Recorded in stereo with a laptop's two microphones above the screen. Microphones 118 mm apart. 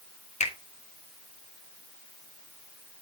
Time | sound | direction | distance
0.4 | a finger snap | 70° left (ahead or behind) | 2.5 m